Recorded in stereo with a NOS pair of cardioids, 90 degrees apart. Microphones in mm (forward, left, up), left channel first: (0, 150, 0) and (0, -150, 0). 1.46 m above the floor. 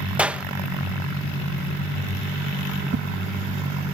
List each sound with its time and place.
0.2 s a clap: 5° right
2.9 s a whoosh: 40° right